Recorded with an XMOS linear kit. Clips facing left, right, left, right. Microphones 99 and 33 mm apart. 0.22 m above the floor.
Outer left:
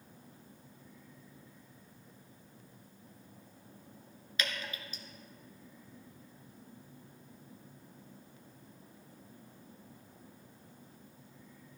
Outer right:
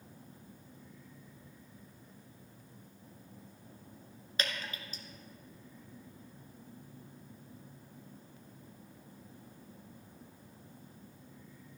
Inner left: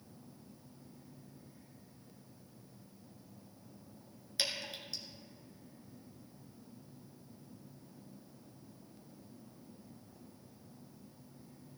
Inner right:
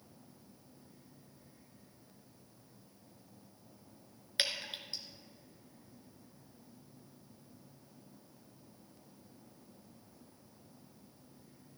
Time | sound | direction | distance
4.4 | dripping | 40° right (ahead or behind) | 1.8 m